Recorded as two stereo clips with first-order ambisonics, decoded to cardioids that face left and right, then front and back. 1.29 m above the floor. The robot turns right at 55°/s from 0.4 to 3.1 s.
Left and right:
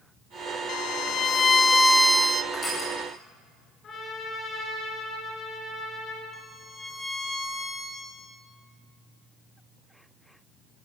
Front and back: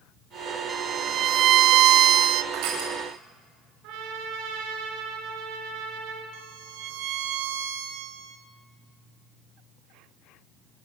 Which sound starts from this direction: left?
A violin, at 0.7 s.